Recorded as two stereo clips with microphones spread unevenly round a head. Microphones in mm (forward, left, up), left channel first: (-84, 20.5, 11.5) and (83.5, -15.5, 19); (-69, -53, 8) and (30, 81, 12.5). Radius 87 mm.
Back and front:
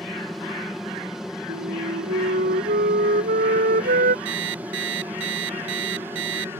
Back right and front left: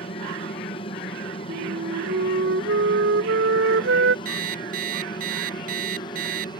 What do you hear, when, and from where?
0.0 s an aircraft: 105° right; by 6.6 s 80° right
1.5 s a flute: 30° left
4.2 s an alarm clock: 5° left